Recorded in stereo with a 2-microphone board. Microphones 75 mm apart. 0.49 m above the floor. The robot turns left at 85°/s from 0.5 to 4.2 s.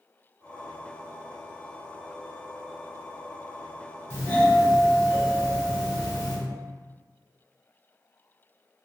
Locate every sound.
4.1 s a doorbell: 35° left (ahead or behind), 1.3 m; by 6.4 s 30° left (ahead or behind), 1.3 m